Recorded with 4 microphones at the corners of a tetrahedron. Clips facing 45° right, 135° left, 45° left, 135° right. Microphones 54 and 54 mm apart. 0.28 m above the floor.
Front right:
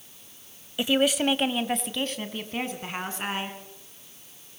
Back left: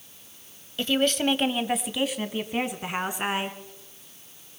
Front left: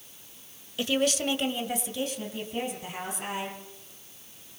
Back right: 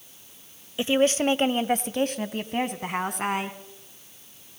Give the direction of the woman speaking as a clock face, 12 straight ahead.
3 o'clock.